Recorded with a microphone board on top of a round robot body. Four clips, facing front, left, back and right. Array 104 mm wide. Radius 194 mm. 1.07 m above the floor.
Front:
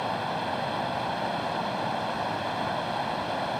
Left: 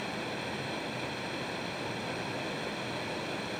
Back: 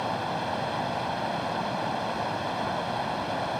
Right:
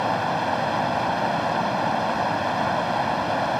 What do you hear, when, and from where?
0.0 s running water: 90° right